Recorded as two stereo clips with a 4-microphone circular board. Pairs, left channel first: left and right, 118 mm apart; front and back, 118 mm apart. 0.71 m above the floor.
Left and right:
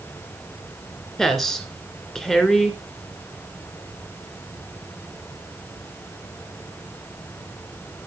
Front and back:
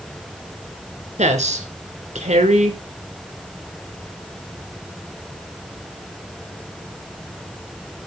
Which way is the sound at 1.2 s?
Straight behind.